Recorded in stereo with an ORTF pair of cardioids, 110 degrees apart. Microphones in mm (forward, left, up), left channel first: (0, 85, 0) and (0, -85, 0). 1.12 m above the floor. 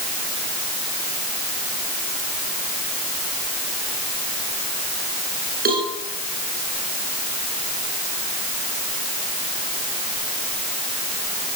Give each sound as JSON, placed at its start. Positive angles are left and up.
{"t": 5.7, "sound": "a cowbell", "azimuth_deg": -60, "distance_m": 9.5}